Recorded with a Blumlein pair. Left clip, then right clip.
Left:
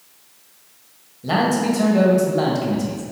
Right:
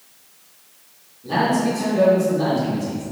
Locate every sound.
1.2 s a man speaking: 50° left, 2 m